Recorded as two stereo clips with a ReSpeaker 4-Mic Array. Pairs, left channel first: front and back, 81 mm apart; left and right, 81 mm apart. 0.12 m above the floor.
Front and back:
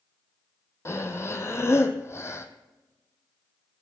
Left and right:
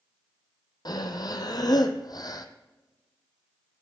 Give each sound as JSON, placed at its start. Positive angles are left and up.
{"t": 0.8, "sound": "breathing", "azimuth_deg": 55, "distance_m": 0.8}